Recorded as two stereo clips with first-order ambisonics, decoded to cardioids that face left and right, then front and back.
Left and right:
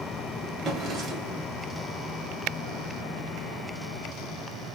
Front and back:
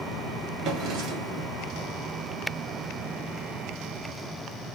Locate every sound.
0.6 s a drawer: 150° right, 1.3 m